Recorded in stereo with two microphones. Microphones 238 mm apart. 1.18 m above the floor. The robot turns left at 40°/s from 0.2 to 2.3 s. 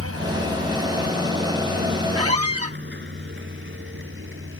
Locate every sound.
0.0 s a vehicle: 80° right; by 4.6 s 55° right (ahead or behind)
2.1 s a squeak: 80° right; by 2.8 s 85° right